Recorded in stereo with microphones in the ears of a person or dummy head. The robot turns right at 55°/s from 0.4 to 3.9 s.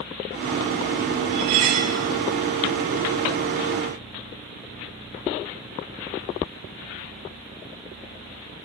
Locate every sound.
1.3 s cutlery clinking: 20° right (ahead or behind), 0.8 m; by 2.0 s 30° right (ahead or behind), 0.8 m